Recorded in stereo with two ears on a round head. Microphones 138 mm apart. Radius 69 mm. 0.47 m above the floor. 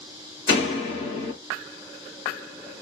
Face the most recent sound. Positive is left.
turn(degrees=35)  # may be behind; listen again after turning